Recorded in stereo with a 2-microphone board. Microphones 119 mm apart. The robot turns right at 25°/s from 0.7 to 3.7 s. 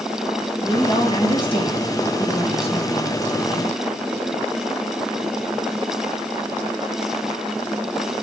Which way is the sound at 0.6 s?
45° left.